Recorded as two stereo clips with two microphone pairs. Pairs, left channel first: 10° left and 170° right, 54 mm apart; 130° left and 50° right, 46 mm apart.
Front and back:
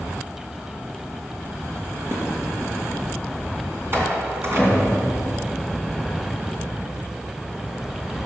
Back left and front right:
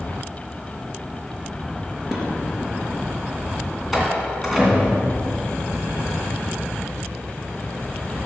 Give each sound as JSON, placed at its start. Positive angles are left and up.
{"t": 2.1, "sound": "dishes clattering", "azimuth_deg": -135, "distance_m": 3.5}
{"t": 3.9, "sound": "a door slam", "azimuth_deg": -130, "distance_m": 2.5}